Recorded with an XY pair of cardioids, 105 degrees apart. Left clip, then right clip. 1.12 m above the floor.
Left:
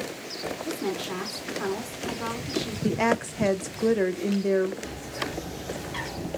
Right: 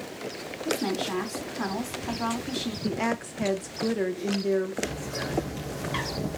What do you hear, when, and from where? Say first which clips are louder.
0.7 s a woman speaking: right 5 dB; 50° right, 1.7 m
2.8 s a woman speaking: left 6 dB; 30° left, 0.6 m
4.8 s a bird: right 1 dB; 65° right, 2.0 m